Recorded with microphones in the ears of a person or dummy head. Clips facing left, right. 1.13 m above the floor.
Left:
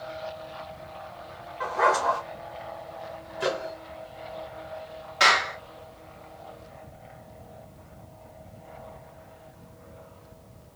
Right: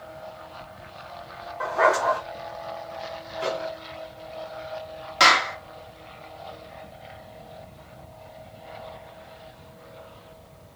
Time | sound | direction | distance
1.6 | a dog barking | 65° right (ahead or behind) | 2.5 m
3.4 | a microwave | 20° left (ahead or behind) | 1.2 m
5.2 | a clap | 70° right (ahead or behind) | 1.6 m